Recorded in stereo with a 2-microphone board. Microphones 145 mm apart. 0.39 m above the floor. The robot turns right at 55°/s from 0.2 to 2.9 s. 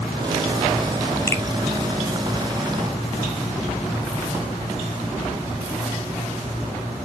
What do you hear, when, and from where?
1.3 s a finger snap: 15° left (ahead or behind), 1.7 m; by 1.4 s 25° left (ahead or behind), 1.7 m